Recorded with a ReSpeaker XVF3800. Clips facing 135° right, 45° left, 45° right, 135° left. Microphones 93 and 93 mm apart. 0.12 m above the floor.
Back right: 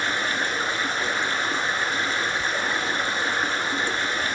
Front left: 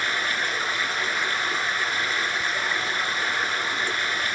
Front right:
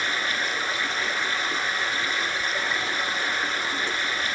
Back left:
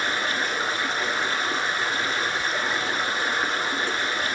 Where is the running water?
175° left, 1.5 m.